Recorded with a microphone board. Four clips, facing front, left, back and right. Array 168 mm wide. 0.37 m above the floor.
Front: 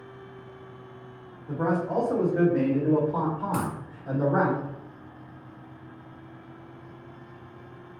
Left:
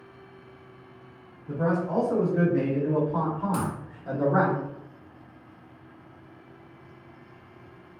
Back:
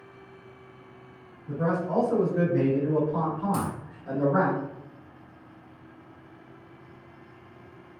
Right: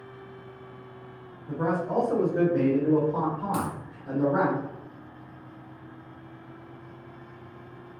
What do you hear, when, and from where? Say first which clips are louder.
1.5 s a man speaking: left 1 dB, front 1 dB; 45° right, 1.9 m; by 4.5 s 85° left, 1.2 m
3.5 s a dropped coin: even, even; 30° right, 1.4 m